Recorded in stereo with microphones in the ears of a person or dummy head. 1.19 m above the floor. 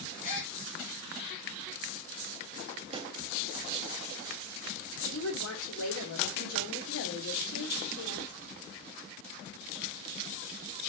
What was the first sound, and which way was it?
A gasp, 40° left (ahead or behind).